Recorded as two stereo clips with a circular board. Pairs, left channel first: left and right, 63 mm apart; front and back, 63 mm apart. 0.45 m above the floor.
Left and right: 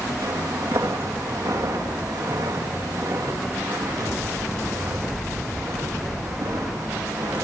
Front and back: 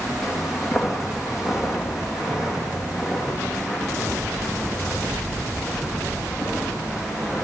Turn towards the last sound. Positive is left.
turn(degrees=-100)